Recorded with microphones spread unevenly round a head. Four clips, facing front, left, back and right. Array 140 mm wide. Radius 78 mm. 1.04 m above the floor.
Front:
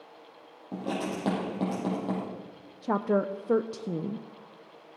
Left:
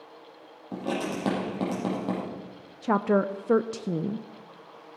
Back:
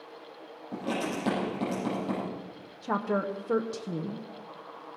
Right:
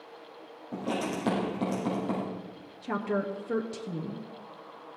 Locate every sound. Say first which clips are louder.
0.7 s writing: left 1 dB, even; 50° left, 6 m
2.8 s a woman speaking: left 7 dB, front 3 dB; 90° left, 0.6 m